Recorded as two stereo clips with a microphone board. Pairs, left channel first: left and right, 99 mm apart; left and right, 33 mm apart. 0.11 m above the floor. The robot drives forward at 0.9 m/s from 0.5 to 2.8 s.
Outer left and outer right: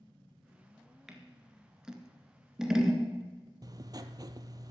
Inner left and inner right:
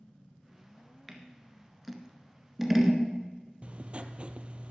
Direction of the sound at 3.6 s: 40° right (ahead or behind).